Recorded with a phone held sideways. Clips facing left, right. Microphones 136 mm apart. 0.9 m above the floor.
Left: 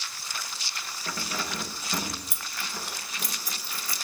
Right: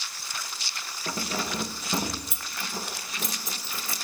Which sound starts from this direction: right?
Keys jangling, at 1.1 s.